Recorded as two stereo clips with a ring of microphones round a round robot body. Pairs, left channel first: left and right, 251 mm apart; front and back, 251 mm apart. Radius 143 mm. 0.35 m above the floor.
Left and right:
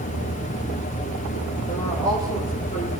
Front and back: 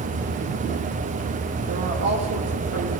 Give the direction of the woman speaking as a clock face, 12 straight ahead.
7 o'clock.